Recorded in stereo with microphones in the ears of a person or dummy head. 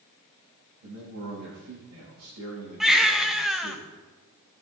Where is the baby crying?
Centre (ahead or behind), 0.8 m.